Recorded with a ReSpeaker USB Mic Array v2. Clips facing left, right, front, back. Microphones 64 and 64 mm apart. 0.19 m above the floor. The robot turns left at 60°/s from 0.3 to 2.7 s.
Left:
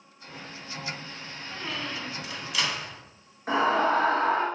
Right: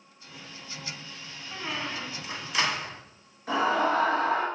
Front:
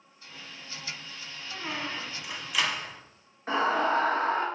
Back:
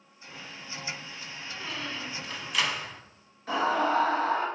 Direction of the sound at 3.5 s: 45° left.